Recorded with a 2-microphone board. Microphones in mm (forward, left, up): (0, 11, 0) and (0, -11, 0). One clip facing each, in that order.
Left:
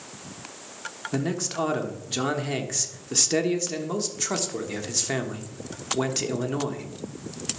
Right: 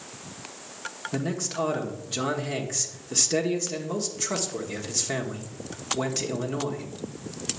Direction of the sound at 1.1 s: 15° left (ahead or behind).